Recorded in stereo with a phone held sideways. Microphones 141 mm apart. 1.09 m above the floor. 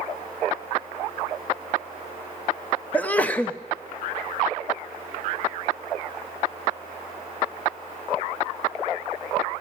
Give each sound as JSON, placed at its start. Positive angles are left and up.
{"t": 2.9, "sound": "a sneeze", "side_deg": 10, "distance_m": 0.8}